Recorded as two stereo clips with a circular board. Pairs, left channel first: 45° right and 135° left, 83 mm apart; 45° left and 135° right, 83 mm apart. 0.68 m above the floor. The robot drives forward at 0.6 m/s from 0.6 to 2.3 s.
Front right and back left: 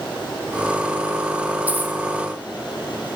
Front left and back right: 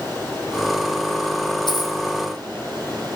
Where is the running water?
15° right, 9.5 m; by 3.2 s 20° right, 8.5 m.